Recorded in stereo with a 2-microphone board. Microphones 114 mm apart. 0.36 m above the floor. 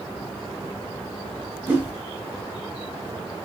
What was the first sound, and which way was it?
A whoosh, 15° right (ahead or behind).